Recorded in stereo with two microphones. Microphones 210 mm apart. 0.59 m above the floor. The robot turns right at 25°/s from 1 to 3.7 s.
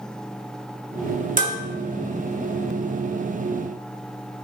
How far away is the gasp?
I don't hear a gasp.